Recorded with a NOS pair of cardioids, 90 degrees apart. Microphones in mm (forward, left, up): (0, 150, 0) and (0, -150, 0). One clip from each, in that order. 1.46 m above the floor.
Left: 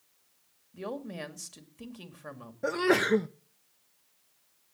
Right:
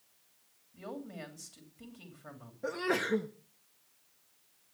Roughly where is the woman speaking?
Ahead left.